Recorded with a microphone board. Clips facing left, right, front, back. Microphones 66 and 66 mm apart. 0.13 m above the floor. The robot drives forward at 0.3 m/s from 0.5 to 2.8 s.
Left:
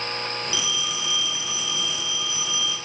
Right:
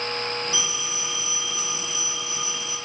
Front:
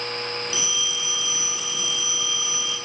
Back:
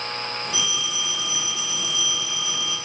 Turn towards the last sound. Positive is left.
turn(degrees=-150)